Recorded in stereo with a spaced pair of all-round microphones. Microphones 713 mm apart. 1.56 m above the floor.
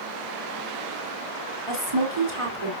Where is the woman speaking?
40° right (ahead or behind), 4.5 m.